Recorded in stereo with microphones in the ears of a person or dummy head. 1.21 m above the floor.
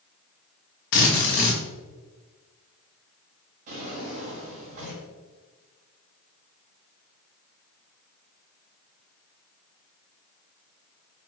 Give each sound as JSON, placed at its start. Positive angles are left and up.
{"t": 0.9, "sound": "a drill", "side_deg": 55, "distance_m": 1.0}
{"t": 3.7, "sound": "a drawer", "side_deg": -45, "distance_m": 1.5}